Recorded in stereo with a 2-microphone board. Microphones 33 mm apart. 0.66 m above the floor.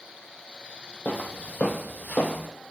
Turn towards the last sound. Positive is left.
turn(degrees=65)  # may be behind; listen again after turning